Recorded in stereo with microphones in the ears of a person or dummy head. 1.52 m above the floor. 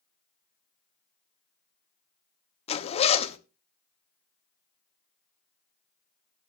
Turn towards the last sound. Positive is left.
turn(degrees=35)  # may be behind; listen again after turning